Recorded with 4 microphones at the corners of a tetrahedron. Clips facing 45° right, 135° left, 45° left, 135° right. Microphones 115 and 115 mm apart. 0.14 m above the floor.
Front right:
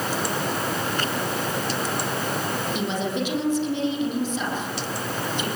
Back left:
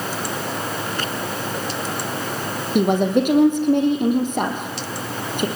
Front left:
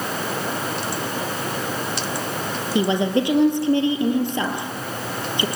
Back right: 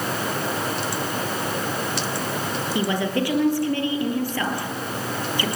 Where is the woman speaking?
110° left, 4 m.